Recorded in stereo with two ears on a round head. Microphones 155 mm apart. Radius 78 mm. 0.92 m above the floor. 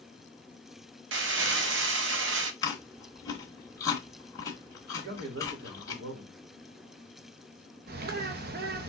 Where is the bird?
60° right (ahead or behind), 0.6 m.